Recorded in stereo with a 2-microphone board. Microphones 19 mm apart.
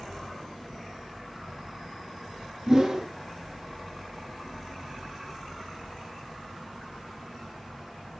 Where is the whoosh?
25° right (ahead or behind), 1.2 m.